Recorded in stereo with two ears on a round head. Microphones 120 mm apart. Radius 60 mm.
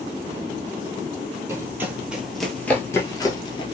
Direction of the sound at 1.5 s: 20° right (ahead or behind).